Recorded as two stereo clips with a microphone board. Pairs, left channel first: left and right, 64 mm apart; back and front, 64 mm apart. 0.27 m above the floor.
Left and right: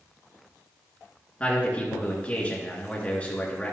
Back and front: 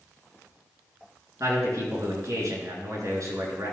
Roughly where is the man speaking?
Ahead.